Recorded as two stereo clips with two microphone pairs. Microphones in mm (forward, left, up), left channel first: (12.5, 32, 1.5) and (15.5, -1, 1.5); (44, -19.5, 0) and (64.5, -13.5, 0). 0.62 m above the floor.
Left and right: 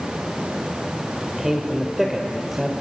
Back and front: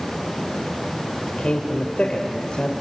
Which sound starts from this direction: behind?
A man speaking, at 1.4 s.